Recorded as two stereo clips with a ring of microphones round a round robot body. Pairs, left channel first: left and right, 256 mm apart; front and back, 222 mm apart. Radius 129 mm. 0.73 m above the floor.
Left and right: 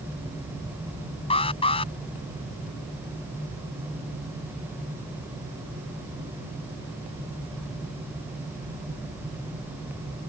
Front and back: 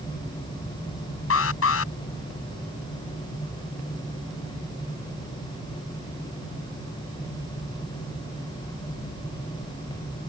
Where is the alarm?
20° left.